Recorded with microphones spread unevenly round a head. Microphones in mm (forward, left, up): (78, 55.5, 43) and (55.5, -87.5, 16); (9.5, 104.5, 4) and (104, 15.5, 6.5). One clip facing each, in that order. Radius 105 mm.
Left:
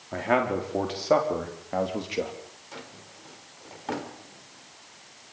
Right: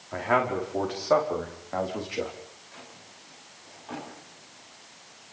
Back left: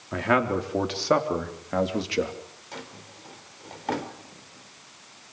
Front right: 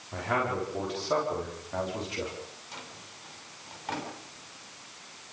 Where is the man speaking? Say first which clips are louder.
Left 1 dB, back left 6 dB; 150° left, 5 m; by 2.3 s 155° left, 3.5 m.